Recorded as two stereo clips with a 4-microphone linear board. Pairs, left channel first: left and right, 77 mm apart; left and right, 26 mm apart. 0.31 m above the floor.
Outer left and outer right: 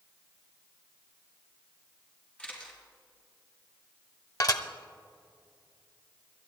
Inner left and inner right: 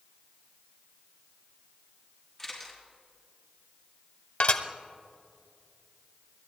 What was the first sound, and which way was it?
A camera shutter, 20° left (ahead or behind).